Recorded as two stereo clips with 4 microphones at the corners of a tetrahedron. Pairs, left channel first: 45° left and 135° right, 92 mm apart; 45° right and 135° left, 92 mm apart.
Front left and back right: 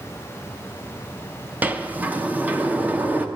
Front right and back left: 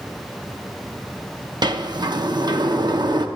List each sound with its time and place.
1.6 s a sliding door: 155° left, 0.8 m